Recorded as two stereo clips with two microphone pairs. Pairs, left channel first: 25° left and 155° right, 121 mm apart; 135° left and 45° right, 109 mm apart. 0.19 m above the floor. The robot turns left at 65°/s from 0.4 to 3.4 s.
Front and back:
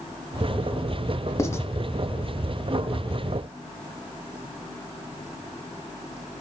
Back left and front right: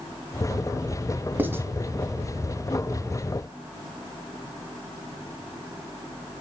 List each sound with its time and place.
1.4 s writing: straight ahead, 1.1 m; by 1.7 s 15° right, 1.1 m